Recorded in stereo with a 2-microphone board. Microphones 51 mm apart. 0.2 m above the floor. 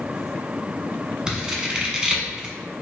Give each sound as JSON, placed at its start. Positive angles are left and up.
{"t": 1.3, "sound": "scissors", "side_deg": -15, "distance_m": 0.9}